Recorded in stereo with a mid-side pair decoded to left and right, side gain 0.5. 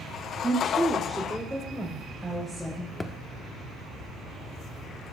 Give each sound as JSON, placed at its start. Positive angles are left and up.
{"t": 0.4, "sound": "a woman speaking", "azimuth_deg": -20, "distance_m": 1.8}
{"t": 3.0, "sound": "a thud", "azimuth_deg": 15, "distance_m": 1.3}